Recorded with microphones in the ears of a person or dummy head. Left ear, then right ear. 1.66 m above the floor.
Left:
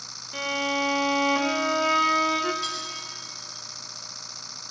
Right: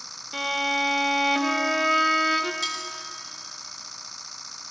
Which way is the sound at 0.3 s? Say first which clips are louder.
Right 2 dB; 25° right (ahead or behind).